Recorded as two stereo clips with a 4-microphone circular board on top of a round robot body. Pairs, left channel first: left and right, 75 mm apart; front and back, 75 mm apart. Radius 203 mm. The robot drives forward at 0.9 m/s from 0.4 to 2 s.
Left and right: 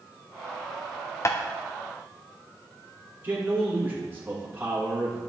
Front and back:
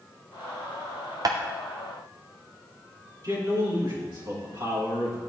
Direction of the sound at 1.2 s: 140° left.